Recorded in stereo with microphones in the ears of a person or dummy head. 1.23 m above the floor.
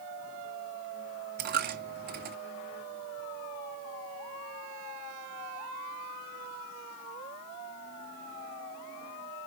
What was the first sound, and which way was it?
A dropped coin, 45° right (ahead or behind).